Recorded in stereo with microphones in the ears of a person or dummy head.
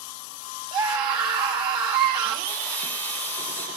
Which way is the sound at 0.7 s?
25° right (ahead or behind).